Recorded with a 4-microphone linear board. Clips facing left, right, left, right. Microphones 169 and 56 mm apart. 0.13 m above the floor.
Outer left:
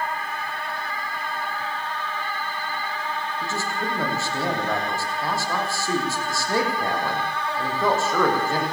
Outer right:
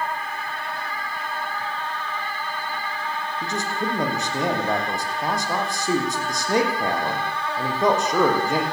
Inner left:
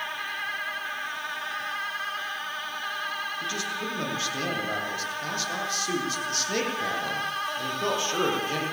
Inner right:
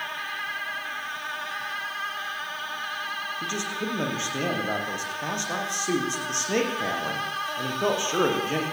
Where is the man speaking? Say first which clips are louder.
Outer right 3 dB, inner right 1 dB; 20° right (ahead or behind), 6.5 m.